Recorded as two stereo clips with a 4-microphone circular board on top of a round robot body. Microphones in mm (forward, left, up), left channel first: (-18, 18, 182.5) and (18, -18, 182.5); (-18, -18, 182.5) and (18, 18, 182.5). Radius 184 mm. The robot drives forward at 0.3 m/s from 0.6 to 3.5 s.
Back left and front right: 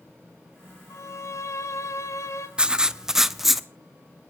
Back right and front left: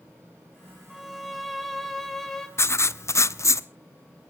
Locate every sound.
0.9 s a violin: 135° left, 1.9 m; by 2.5 s 145° left, 2 m
2.6 s writing: 115° right, 0.8 m; by 3.7 s 135° right, 0.9 m